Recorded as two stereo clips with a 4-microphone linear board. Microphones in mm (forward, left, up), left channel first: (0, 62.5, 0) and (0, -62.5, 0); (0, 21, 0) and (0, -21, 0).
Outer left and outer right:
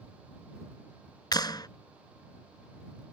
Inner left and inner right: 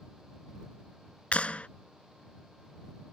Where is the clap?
35° left (ahead or behind).